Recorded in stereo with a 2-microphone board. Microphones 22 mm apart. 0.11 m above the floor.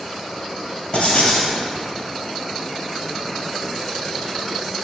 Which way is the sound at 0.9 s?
55° left (ahead or behind).